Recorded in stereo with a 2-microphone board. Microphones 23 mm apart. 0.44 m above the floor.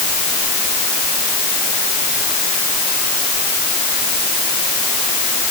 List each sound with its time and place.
Only background noise.